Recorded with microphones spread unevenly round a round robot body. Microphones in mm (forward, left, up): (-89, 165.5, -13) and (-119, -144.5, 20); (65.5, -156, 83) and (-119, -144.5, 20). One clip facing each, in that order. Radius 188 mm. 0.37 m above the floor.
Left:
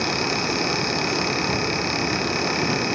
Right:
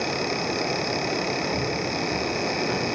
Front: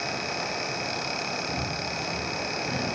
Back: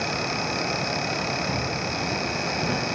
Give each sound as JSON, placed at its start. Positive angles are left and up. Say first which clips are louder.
{"t": 1.5, "sound": "footsteps", "louder": "left 2 dB, back 4 dB", "azimuth_deg": 120, "distance_m": 5.0}